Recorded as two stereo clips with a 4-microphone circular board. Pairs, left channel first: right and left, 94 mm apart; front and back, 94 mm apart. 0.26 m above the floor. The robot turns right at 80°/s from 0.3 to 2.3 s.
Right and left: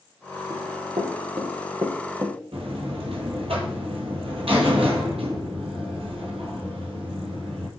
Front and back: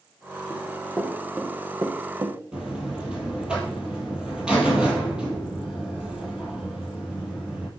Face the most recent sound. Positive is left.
turn(degrees=100)